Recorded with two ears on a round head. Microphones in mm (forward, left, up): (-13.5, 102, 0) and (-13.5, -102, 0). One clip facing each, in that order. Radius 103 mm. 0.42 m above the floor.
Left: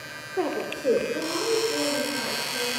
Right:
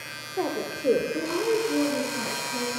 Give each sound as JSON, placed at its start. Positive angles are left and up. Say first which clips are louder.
{"t": 0.4, "sound": "a woman speaking", "louder": "left 1 dB", "side_deg": 15, "distance_m": 0.8}